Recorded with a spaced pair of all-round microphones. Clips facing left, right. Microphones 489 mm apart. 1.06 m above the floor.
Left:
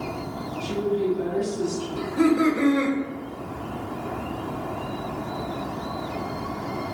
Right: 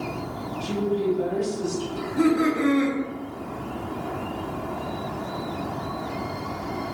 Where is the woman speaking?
60° right (ahead or behind), 1.5 m.